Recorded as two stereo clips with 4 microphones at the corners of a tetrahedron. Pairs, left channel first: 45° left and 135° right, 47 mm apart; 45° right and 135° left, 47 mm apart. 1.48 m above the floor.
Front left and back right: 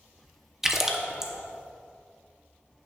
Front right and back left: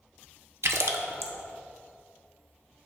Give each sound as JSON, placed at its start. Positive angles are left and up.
{"t": 0.6, "sound": "a splash", "azimuth_deg": 145, "distance_m": 0.7}